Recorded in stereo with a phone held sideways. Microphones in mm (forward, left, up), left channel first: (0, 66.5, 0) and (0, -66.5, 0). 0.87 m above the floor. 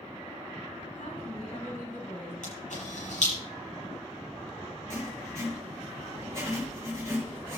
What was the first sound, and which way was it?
A woman speaking, 75° left (ahead or behind).